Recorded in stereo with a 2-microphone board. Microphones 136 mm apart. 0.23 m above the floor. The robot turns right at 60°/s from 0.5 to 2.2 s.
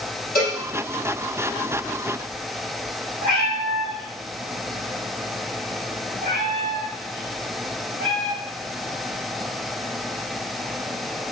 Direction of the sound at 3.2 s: 40° right (ahead or behind).